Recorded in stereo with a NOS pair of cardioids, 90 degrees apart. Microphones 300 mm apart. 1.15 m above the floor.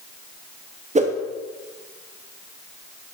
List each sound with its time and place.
0.9 s a whoosh: 25° right, 1.3 m